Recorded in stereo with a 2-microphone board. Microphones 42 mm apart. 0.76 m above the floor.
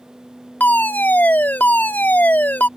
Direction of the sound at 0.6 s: 50° left (ahead or behind).